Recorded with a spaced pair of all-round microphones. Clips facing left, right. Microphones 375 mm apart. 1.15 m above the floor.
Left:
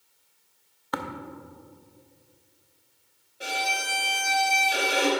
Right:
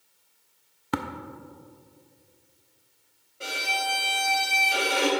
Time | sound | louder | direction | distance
0.9 | tapping | right 4 dB | 40° right (ahead or behind) | 0.6 m
3.4 | a violin | left 1 dB | 5° right (ahead or behind) | 1.5 m